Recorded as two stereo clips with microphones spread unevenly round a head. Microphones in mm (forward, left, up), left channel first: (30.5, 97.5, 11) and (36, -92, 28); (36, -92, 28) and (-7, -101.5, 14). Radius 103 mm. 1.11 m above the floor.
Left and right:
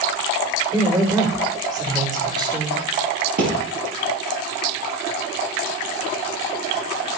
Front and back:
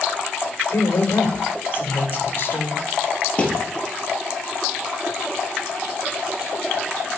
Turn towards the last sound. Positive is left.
turn(degrees=-50)